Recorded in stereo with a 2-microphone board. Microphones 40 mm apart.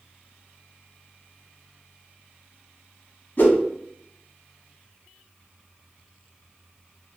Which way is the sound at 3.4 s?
45° left (ahead or behind).